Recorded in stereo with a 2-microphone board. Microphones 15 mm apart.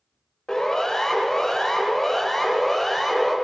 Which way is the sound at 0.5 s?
40° left (ahead or behind).